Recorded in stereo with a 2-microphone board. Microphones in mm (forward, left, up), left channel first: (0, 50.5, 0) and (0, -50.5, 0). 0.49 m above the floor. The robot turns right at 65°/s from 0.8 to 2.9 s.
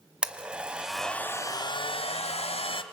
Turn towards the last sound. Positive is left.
turn(degrees=125)